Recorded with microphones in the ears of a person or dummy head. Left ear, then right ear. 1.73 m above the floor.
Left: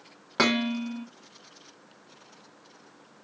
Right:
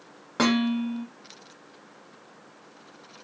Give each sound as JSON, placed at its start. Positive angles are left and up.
{"t": 0.4, "sound": "dishes clattering", "side_deg": 30, "distance_m": 1.3}